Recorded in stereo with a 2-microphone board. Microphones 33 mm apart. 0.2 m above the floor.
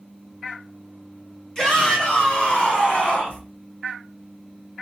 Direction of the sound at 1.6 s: 20° left (ahead or behind).